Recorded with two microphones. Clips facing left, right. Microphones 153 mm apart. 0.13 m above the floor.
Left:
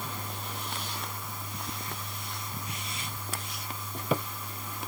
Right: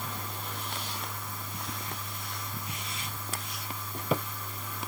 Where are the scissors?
No scissors in this recording.